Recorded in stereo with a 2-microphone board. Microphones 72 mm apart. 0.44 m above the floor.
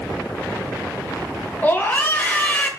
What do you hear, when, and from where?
1.6 s a scream: 20° left (ahead or behind), 1.5 m